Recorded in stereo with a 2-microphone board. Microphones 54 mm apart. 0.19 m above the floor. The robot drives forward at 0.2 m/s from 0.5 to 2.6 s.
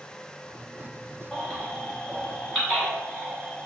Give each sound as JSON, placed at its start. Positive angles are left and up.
{"t": 1.3, "sound": "a baby crying", "side_deg": 5, "distance_m": 1.3}